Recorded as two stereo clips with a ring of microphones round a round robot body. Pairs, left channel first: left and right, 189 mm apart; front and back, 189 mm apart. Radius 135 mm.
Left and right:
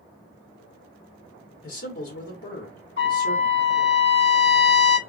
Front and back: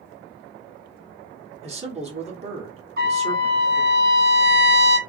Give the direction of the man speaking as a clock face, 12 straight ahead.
8 o'clock.